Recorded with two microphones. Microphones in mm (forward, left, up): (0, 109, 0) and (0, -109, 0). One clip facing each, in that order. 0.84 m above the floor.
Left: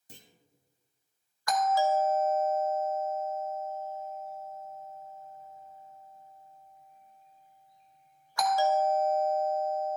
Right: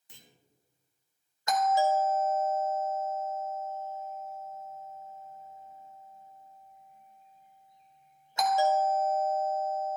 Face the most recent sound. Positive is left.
turn(degrees=-25)  # may be behind; listen again after turning